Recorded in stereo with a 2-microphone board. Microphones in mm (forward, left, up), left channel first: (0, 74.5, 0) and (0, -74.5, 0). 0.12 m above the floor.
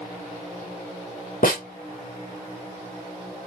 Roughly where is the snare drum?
Left.